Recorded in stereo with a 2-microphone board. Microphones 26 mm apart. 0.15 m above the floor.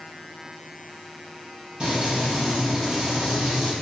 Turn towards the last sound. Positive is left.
turn(degrees=-30)  # may be behind; listen again after turning